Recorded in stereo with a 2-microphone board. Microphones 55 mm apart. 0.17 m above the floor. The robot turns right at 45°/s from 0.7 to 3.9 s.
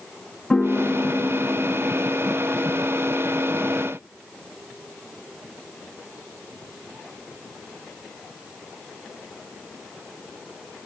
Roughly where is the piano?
Ahead.